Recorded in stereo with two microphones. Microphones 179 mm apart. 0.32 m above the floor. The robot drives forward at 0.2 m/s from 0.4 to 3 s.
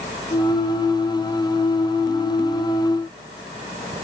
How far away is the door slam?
No door slam in this recording.